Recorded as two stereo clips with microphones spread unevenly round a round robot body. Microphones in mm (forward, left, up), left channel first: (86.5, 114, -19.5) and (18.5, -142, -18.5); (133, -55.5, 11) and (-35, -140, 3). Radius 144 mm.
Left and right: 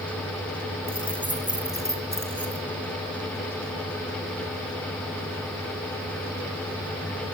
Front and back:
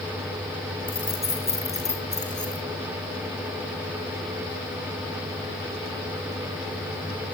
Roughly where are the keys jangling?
Ahead right.